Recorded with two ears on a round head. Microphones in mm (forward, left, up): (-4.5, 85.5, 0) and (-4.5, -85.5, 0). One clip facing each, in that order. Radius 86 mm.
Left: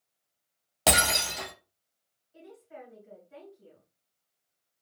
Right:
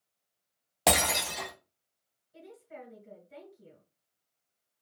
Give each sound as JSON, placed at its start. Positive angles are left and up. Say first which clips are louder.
{"t": 0.9, "sound": "breaking glass", "louder": "even", "side_deg": 5, "distance_m": 1.6}
{"t": 2.3, "sound": "a woman speaking", "louder": "even", "side_deg": -45, "distance_m": 2.0}